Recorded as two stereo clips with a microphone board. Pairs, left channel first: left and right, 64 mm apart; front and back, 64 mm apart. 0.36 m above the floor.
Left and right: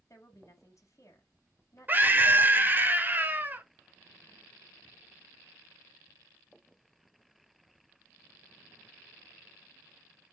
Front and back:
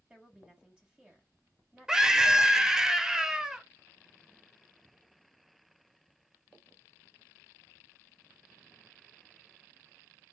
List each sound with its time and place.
0.1 s a woman speaking: 110° left, 2.5 m
1.9 s a scream: 105° right, 0.9 m